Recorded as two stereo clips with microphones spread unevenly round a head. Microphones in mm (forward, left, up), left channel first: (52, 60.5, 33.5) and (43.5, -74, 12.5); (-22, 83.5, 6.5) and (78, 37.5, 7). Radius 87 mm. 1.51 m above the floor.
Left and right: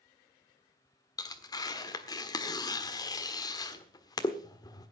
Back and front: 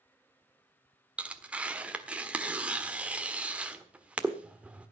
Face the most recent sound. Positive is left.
turn(degrees=50)